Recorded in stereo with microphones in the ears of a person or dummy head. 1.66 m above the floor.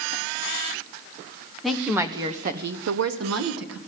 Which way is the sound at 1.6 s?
5° left (ahead or behind).